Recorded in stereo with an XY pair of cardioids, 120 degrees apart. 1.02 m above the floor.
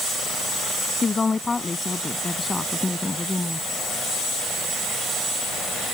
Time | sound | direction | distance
1.0 | a woman speaking | 25° left | ?